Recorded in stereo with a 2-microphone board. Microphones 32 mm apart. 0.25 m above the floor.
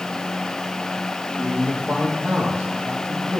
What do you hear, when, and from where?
1.4 s a man speaking: 35° right (ahead or behind), 7 m; by 3.4 s 45° right (ahead or behind), 7.5 m